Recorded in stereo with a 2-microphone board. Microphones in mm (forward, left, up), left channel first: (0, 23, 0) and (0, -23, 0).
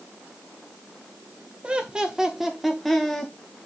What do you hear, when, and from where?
1.6 s laughter: 25° right (ahead or behind), 1.5 m; by 3.3 s 10° left (ahead or behind), 1.8 m